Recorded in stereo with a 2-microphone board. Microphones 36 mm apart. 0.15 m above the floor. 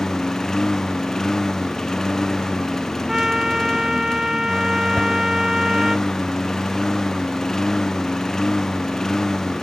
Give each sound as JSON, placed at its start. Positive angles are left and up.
{"t": 0.0, "sound": "a lawn mower", "side_deg": 10}
{"t": 3.1, "sound": "a trumpet", "side_deg": -20}
{"t": 5.0, "sound": "a whoosh", "side_deg": 15}